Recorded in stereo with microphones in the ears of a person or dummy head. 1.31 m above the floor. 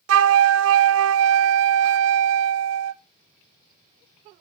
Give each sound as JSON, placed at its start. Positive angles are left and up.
{"t": 0.1, "sound": "a flute", "side_deg": -80, "distance_m": 0.6}